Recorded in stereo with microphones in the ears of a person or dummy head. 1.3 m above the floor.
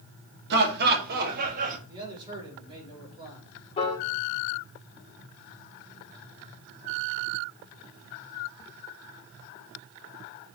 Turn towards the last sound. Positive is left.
turn(degrees=25)  # may be behind; listen again after turning